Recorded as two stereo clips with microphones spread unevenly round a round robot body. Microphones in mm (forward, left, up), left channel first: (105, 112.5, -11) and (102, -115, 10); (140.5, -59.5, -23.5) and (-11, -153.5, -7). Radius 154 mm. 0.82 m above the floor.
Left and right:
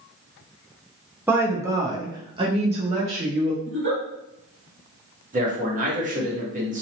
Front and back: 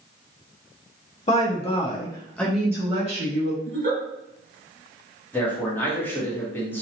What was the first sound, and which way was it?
A woman speaking, 10° right.